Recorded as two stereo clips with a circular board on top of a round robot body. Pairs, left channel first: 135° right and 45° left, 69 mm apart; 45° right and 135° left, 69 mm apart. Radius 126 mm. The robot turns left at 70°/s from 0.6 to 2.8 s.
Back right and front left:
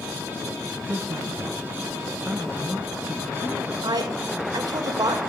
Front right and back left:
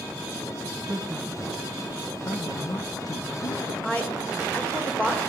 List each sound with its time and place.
0.9 s a man speaking: 85° left, 2.5 m; by 3.7 s 50° right, 2.5 m
3.8 s a woman speaking: 25° left, 4.5 m